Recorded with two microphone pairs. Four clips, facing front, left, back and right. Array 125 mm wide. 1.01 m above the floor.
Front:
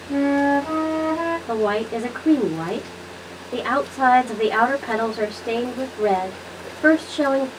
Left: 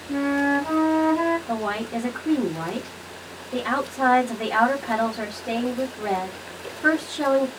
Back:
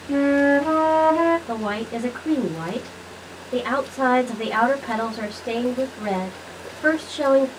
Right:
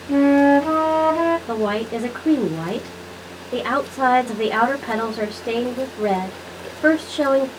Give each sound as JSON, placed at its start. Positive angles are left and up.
{"t": 0.1, "sound": "a flute", "azimuth_deg": -130, "distance_m": 0.8}
{"t": 1.5, "sound": "a woman speaking", "azimuth_deg": -70, "distance_m": 1.0}